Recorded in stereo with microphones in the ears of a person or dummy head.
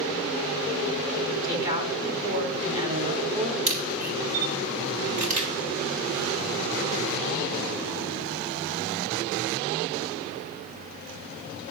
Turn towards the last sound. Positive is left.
turn(degrees=-40)  # may be behind; listen again after turning